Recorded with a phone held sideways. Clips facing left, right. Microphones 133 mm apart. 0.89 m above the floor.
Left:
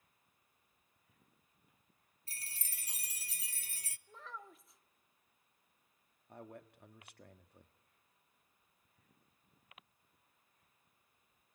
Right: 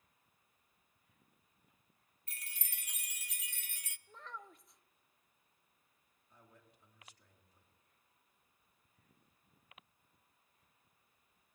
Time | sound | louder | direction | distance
2.3 | a chime | even | 30° left (ahead or behind) | 0.5 m
4.1 | a child speaking | even | centre (ahead or behind) | 0.8 m
6.3 | a man speaking | left 13 dB | 65° left (ahead or behind) | 1.3 m